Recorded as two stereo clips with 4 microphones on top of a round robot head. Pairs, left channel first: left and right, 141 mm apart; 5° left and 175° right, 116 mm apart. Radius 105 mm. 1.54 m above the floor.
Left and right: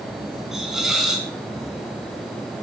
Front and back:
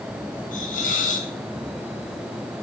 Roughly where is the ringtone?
No ringtone in this recording.